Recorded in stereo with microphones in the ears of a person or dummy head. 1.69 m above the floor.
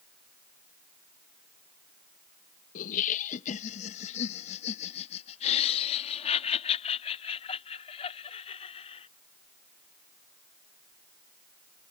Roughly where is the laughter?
Left.